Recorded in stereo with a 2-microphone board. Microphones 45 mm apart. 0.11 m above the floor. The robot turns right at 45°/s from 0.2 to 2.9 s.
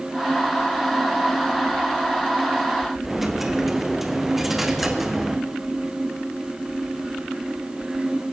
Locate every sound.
3.0 s a dropped coin: 5° right (ahead or behind), 2 m